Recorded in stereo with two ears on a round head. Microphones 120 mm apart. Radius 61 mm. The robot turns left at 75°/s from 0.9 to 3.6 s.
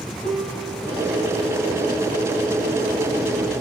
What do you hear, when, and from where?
0.2 s a piano: 100° right, 3 m; by 1.9 s 170° right, 3 m